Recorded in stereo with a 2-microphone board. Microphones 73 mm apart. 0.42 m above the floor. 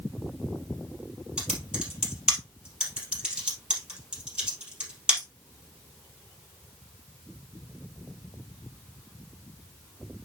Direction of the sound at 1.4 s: 10° right (ahead or behind).